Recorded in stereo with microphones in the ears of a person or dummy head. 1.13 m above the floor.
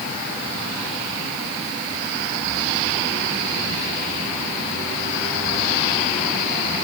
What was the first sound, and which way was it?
Only background noise.